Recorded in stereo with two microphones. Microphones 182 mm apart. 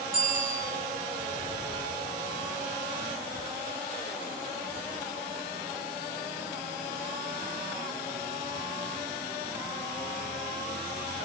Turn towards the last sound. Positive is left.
turn(degrees=-50)  # may be behind; listen again after turning